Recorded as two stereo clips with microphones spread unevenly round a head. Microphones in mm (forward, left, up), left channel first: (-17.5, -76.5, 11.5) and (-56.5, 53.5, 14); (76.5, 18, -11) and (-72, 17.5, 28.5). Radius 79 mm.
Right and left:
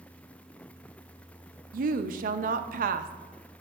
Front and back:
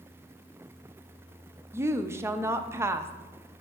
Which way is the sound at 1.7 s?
100° left.